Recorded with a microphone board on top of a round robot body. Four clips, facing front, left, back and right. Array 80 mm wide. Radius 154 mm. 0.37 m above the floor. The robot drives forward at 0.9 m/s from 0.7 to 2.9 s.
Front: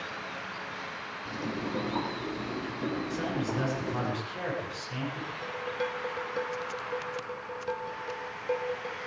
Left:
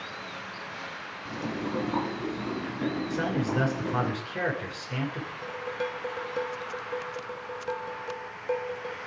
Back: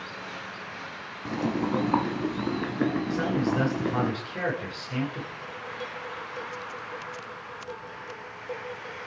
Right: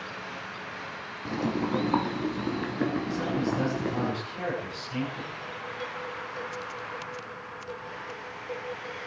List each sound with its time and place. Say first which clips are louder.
1.2 s boiling: right 5 dB, back 8 dB; 150° right, 2.5 m; by 4.1 s 160° right, 3.5 m
3.1 s a man speaking: even, back 5 dB; 120° left, 8 m
5.4 s dishes clattering: left 4 dB, front 4 dB; 65° left, 2 m